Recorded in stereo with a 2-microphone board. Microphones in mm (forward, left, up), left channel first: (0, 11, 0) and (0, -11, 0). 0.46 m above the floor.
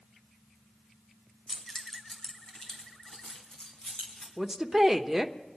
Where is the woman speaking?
15° right (ahead or behind), 0.8 m.